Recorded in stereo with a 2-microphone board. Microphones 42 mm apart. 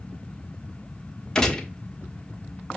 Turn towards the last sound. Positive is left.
turn(degrees=10)  # may be behind; listen again after turning